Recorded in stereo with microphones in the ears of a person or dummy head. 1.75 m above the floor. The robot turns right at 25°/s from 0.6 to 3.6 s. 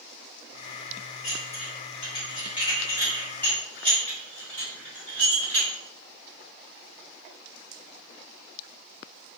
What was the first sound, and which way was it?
Dishes clattering, 55° left (ahead or behind).